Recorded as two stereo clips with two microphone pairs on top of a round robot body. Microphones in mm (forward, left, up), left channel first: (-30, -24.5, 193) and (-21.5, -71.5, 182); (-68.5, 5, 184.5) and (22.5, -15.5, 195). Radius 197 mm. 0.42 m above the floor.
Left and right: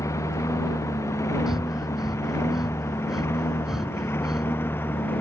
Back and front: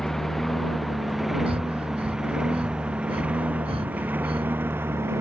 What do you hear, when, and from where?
0.0 s a lawn mower: 80° left; by 5.2 s 55° left
1.5 s breathing: 5° left